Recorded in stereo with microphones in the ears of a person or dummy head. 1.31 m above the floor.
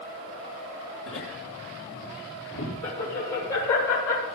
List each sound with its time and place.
1.1 s laughter: 80° left, 3 m; by 4.2 s 85° left, 4 m